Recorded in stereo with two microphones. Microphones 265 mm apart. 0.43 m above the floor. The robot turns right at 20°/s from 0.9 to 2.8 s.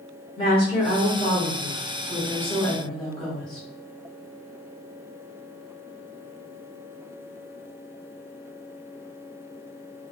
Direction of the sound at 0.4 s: 20° left (ahead or behind).